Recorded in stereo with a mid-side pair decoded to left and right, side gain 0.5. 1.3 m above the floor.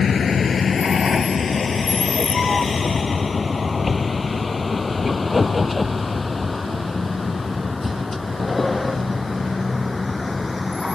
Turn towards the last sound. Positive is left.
turn(degrees=15)